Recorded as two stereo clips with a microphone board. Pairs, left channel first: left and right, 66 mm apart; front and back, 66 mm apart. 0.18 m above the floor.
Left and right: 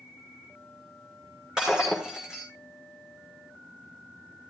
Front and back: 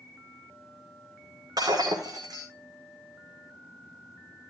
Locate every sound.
1.6 s breaking glass: 165° right, 5.5 m